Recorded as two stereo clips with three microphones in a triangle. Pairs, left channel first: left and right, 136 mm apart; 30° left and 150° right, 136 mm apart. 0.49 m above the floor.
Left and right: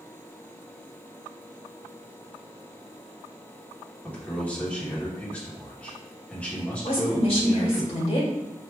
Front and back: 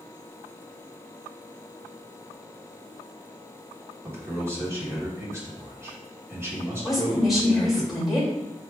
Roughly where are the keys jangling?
No keys jangling in this recording.